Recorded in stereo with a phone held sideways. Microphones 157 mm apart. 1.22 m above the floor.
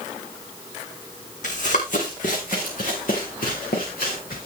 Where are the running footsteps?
55° left (ahead or behind), 3 m; by 4.5 s 70° left (ahead or behind), 6.5 m.